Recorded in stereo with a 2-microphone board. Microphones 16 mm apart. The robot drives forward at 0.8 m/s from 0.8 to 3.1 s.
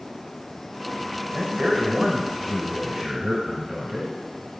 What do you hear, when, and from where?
1.3 s a man speaking: 30° right (ahead or behind), 1.2 m; by 4.1 s 20° right (ahead or behind), 1.5 m